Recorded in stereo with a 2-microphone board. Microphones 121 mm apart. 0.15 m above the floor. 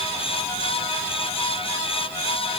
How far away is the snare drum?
I don't hear a snare drum.